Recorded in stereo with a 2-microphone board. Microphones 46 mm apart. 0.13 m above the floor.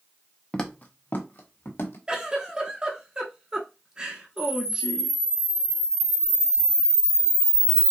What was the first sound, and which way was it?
Footsteps, 15° left (ahead or behind).